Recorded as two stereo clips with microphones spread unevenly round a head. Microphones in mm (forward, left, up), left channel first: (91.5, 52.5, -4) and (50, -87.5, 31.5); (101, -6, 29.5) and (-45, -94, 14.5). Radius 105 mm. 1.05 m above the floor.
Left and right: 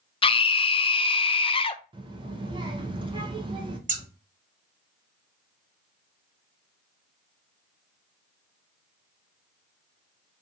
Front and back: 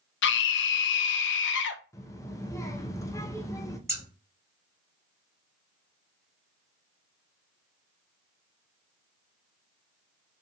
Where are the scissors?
75° right, 1.6 m.